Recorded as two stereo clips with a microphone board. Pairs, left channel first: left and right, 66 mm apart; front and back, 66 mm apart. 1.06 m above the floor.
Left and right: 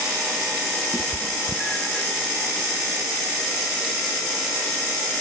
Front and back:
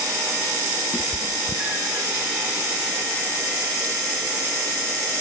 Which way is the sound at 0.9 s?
165° left.